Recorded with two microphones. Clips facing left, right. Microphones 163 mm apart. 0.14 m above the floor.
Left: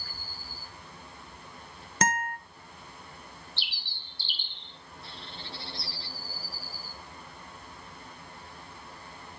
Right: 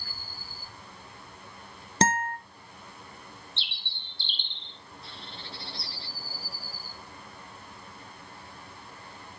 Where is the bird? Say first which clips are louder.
Even; 25° right (ahead or behind), 0.7 m.